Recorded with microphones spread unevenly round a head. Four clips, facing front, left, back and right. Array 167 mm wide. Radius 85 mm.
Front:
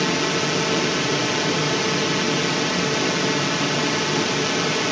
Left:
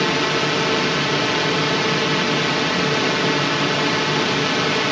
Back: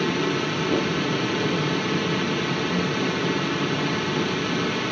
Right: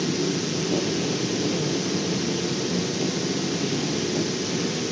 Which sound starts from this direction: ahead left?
A drone, at 0.0 s.